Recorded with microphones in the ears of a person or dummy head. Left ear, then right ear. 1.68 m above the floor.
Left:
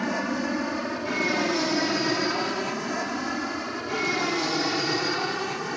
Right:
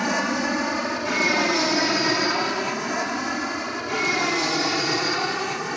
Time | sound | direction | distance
0.0 | an aircraft | 30° right (ahead or behind) | ?